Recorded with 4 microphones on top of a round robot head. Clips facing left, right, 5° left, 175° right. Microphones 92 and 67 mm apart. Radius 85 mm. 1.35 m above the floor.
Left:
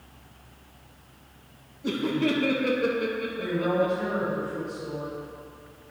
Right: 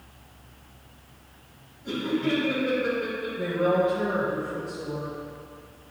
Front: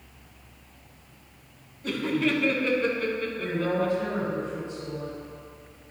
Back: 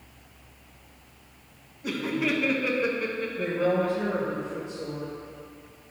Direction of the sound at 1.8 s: 105° left.